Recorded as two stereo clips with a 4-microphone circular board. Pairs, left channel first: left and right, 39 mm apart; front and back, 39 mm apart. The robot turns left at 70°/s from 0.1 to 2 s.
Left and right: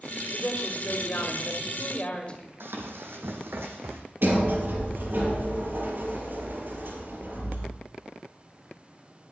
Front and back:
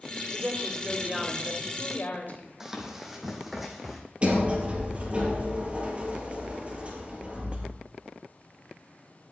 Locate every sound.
0.3 s a woman speaking: 150° left, 2.5 m; by 2.5 s 30° left, 2.5 m
2.6 s running footsteps: 100° right, 1.9 m; by 4.0 s 95° right, 2.5 m
4.2 s a sliding door: 120° right, 5.5 m